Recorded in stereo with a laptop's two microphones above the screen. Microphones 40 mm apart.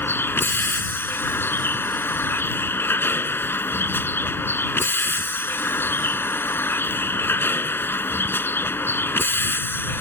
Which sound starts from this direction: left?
A vehicle, at 0.0 s.